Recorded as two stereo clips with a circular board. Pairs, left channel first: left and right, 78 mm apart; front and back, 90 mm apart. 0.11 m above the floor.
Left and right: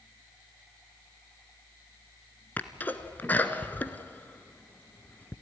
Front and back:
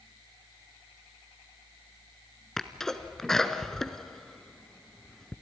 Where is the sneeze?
80° left, 1.1 m.